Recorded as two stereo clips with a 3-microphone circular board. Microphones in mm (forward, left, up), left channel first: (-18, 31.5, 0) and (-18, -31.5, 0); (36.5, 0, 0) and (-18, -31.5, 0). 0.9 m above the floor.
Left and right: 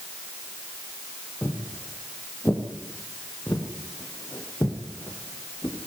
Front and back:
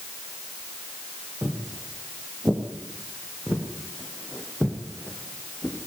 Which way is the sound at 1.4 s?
150° left.